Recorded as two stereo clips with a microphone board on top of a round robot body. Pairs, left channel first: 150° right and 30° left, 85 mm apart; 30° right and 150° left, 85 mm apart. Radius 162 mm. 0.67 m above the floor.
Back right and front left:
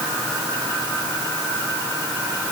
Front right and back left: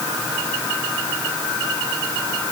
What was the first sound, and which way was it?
Only background noise.